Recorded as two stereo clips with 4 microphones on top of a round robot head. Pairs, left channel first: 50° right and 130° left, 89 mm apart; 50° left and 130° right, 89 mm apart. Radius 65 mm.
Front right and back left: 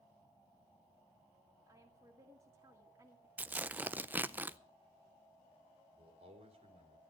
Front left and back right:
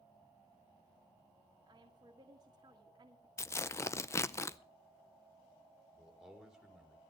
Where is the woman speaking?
175° right, 1.7 m.